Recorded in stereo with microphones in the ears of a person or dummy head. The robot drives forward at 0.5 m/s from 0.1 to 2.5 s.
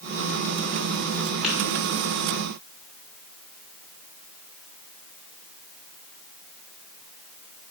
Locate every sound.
1.4 s tapping: centre (ahead or behind), 1.9 m